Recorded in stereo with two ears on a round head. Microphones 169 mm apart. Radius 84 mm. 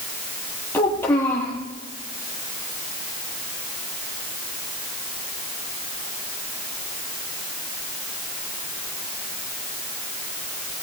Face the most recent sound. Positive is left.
turn(degrees=10)  # may be behind; listen again after turning